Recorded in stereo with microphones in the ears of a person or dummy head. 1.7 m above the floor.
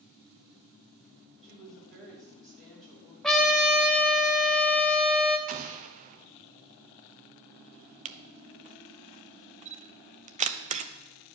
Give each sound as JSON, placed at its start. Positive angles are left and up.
{"t": 1.4, "sound": "a woman speaking", "side_deg": 0, "distance_m": 4.5}
{"t": 3.2, "sound": "a trumpet", "side_deg": 10, "distance_m": 0.9}
{"t": 5.5, "sound": "an explosion", "side_deg": -45, "distance_m": 0.5}
{"t": 8.1, "sound": "a camera shutter", "side_deg": -40, "distance_m": 0.6}